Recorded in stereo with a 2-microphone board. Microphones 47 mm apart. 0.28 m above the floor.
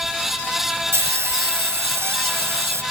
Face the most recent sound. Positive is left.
turn(degrees=-75)  # may be behind; listen again after turning